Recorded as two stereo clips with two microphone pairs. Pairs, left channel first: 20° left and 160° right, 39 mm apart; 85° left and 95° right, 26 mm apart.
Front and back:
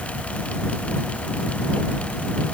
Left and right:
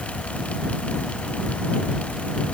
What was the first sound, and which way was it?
Only background noise.